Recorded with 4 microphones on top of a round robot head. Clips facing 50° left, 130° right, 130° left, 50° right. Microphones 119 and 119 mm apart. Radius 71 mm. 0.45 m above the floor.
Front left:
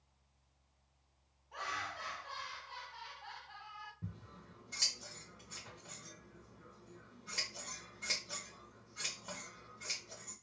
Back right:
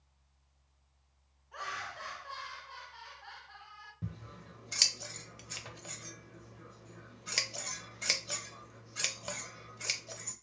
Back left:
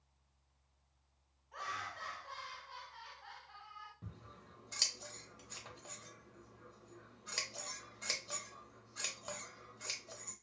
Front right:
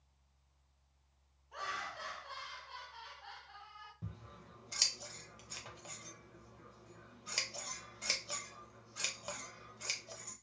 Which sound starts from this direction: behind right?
Scissors, at 4.0 s.